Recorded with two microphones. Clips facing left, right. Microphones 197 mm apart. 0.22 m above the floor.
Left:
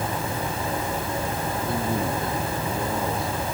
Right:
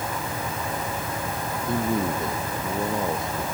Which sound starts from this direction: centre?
A man speaking, at 1.7 s.